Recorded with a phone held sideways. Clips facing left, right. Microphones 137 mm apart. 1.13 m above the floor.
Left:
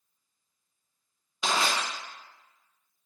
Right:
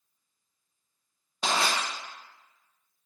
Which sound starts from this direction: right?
Crushing, at 1.4 s.